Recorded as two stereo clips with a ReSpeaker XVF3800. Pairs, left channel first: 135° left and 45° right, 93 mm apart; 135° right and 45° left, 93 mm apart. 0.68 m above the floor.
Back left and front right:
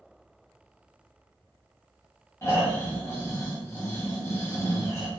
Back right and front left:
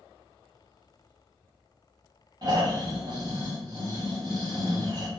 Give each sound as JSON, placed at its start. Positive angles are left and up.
{"t": 2.4, "sound": "snoring", "azimuth_deg": 80, "distance_m": 1.9}